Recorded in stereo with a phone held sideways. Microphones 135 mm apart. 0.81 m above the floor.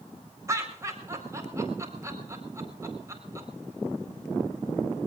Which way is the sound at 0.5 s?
20° right (ahead or behind).